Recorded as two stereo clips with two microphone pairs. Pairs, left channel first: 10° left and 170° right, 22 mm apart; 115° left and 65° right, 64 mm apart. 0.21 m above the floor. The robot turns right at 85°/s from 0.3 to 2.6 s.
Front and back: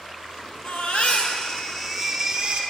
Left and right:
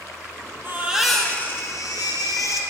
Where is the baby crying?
15° right, 1.6 m; by 2.6 s 155° left, 1.6 m.